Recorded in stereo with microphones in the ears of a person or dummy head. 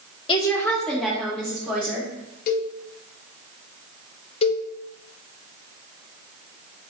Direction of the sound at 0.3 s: 30° left (ahead or behind).